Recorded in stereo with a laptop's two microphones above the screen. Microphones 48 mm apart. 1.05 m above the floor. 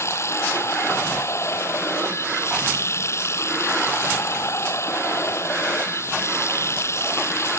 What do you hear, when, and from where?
0.0 s running water: 70° left (ahead or behind)